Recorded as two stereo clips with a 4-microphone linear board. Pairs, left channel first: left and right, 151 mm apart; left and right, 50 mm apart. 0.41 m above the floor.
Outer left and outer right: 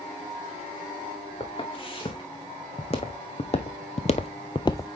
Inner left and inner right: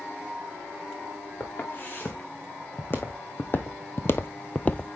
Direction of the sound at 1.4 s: 35° left (ahead or behind).